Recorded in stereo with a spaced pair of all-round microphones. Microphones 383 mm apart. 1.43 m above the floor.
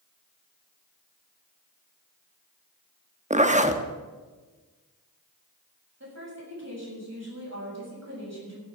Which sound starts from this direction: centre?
A zipper, at 3.3 s.